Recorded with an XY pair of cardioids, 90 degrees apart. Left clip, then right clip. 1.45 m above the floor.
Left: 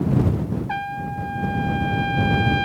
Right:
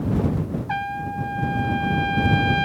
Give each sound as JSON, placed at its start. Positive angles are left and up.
{"t": 0.7, "sound": "a trumpet", "azimuth_deg": -10}